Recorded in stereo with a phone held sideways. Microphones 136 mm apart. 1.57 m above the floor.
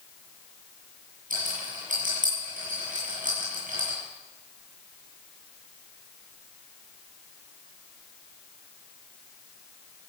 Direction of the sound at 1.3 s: 75° right (ahead or behind).